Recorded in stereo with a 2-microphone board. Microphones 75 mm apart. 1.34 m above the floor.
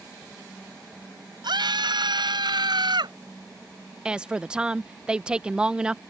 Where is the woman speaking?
10° right (ahead or behind).